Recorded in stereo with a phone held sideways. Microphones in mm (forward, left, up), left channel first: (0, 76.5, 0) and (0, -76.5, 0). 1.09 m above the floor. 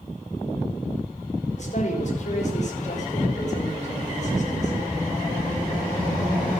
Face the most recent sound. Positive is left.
turn(degrees=50)  # may be behind; listen again after turning